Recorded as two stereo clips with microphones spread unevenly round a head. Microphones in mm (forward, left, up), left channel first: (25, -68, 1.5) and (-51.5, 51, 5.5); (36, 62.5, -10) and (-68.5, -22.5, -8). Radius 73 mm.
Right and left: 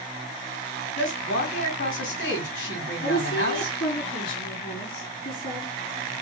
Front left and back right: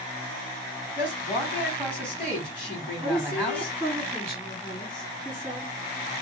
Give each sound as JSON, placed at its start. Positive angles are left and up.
{"t": 1.0, "sound": "a woman speaking", "azimuth_deg": -45, "distance_m": 2.5}
{"t": 3.0, "sound": "a woman speaking", "azimuth_deg": -45, "distance_m": 3.5}